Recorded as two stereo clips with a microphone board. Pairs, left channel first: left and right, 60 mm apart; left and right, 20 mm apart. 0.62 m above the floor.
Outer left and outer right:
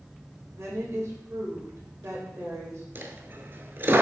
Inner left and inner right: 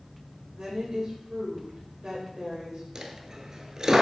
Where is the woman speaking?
45° right (ahead or behind), 3 m.